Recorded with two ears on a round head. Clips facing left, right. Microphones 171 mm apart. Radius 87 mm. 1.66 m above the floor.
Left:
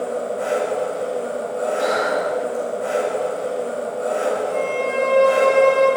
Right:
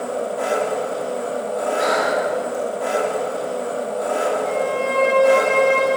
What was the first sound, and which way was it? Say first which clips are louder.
An engine running: even; 75° right (ahead or behind).